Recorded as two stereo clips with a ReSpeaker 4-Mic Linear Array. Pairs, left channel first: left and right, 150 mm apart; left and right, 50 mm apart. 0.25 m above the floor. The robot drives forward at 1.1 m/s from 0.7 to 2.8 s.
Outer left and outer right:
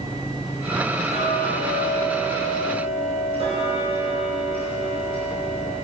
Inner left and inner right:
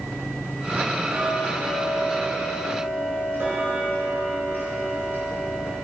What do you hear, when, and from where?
1.1 s ticking: 60° right (ahead or behind), 3.5 m; by 5.7 s 45° right (ahead or behind), 4.5 m